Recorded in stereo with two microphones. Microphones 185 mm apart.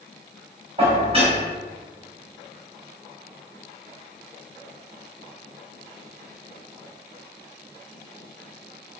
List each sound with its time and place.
0.8 s dishes clattering: 30° right (ahead or behind), 1.0 m